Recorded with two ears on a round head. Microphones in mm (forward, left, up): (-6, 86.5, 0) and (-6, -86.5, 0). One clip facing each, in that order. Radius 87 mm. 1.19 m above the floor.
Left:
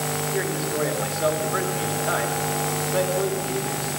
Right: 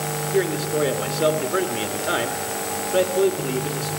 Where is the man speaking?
40° right (ahead or behind), 2.0 m.